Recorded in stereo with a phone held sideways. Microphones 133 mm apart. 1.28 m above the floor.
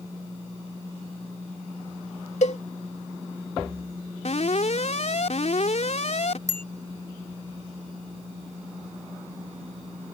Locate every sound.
2.4 s a cowbell: 65° left (ahead or behind)
4.2 s an alarm: 65° left (ahead or behind)
6.5 s a bicycle bell: 65° right (ahead or behind)